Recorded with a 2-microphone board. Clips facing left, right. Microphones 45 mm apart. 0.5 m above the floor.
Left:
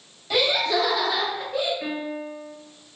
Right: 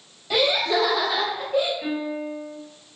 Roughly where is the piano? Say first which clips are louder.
Right 2 dB; left.